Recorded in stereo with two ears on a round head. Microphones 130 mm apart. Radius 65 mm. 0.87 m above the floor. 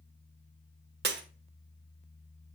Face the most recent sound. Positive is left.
turn(degrees=-85)